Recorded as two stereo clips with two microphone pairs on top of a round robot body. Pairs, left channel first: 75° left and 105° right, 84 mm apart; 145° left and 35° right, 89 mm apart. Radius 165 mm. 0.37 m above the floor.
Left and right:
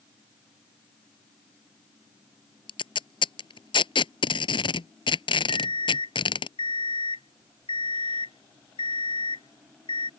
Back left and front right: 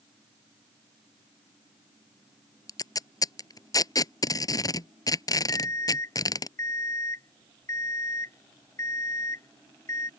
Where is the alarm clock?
85° left.